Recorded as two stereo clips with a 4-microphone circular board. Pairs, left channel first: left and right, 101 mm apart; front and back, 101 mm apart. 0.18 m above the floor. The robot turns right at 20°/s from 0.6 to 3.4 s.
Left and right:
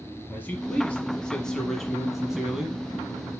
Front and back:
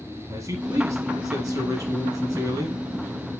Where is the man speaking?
150° left, 1.1 m; by 2.8 s 165° right, 1.1 m.